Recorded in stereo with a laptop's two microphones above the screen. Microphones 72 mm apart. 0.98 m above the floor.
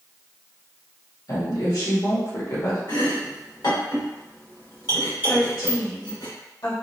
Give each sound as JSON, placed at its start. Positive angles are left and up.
{"t": 1.3, "sound": "a woman speaking", "side_deg": 55, "distance_m": 1.6}
{"t": 2.9, "sound": "chopping", "side_deg": 80, "distance_m": 1.7}
{"t": 5.3, "sound": "a woman speaking", "side_deg": 80, "distance_m": 1.8}